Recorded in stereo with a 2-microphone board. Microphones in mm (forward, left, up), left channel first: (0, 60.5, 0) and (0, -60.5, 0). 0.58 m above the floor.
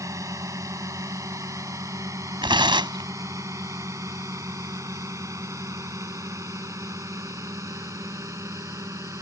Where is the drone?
25° right (ahead or behind).